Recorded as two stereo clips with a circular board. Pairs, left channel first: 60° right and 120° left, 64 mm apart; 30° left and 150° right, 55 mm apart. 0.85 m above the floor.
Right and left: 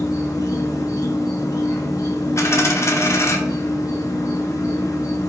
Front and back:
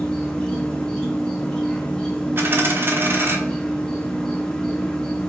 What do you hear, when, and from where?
0.0 s an insect: 45° right, 0.9 m
2.4 s a dropped coin: 100° right, 0.8 m